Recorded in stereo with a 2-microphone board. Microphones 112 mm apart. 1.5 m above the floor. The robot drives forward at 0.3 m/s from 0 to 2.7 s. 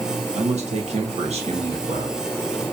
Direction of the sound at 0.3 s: 75° right (ahead or behind).